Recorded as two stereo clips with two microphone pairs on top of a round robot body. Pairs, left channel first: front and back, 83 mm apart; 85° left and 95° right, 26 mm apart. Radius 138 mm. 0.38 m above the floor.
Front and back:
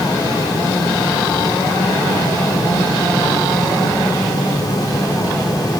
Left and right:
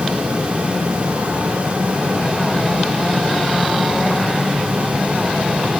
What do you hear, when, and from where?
Only background noise.